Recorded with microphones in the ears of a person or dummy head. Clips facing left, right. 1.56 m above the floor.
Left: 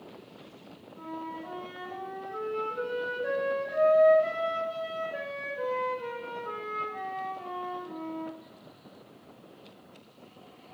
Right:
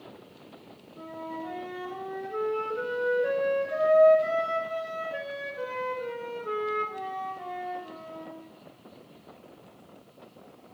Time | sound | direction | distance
1.0 | a flute | 25° right (ahead or behind) | 1.4 m